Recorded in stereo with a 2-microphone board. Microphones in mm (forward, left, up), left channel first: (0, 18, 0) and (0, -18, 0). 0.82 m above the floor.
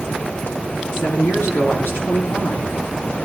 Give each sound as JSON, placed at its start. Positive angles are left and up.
{"t": 0.9, "sound": "a woman speaking", "side_deg": 85, "distance_m": 10.0}